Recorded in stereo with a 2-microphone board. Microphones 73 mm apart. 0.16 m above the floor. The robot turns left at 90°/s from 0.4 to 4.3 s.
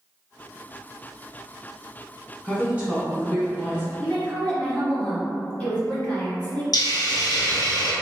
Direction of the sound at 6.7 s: 60° left (ahead or behind).